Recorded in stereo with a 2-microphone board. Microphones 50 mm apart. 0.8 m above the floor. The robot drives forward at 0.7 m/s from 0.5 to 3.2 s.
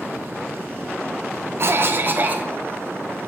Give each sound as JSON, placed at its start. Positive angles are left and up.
{"t": 1.6, "sound": "a cough", "side_deg": -50, "distance_m": 0.7}